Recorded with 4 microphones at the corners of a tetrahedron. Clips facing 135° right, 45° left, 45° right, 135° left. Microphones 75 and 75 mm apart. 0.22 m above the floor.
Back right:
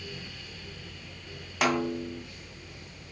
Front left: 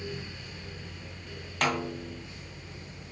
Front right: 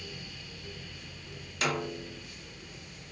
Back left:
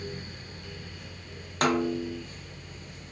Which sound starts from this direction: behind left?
A snare drum, at 1.6 s.